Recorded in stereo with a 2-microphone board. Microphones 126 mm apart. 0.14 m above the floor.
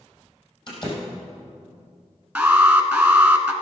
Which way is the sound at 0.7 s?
40° left (ahead or behind).